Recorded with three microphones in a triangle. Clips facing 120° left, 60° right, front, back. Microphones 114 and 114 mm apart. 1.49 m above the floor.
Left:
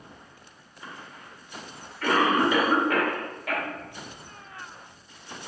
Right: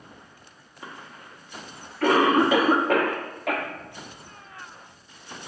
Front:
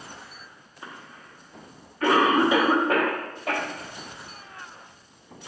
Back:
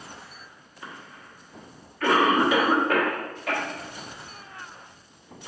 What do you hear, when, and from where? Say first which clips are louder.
0.8 s a cough: right 1 dB, even; 60° right, 1.1 m